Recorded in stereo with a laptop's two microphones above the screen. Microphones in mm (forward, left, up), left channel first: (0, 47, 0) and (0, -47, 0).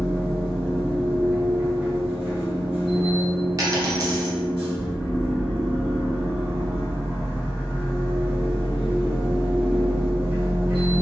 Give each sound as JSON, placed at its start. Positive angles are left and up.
{"t": 0.0, "sound": "a machine running", "side_deg": -70, "distance_m": 1.4}
{"t": 3.6, "sound": "a dropped coin", "side_deg": -40, "distance_m": 0.7}